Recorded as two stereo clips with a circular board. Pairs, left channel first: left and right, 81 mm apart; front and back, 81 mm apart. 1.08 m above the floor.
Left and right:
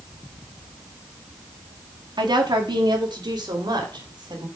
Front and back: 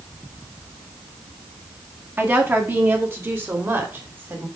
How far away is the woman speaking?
About 1.8 m.